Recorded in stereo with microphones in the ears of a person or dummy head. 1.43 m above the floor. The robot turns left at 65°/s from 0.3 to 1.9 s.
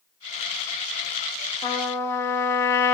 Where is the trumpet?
25° left (ahead or behind), 0.7 m; by 2.9 s 15° left (ahead or behind), 0.7 m.